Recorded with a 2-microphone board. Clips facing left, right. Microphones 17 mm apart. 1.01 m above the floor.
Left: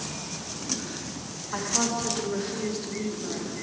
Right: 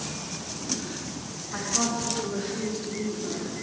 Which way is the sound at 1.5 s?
65° left (ahead or behind).